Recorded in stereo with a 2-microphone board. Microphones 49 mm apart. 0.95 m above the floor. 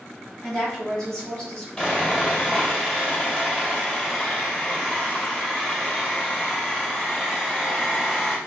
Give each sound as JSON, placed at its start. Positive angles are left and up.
{"t": 0.4, "sound": "a woman speaking", "side_deg": 15, "distance_m": 2.0}
{"t": 1.8, "sound": "sawing", "side_deg": 25, "distance_m": 2.5}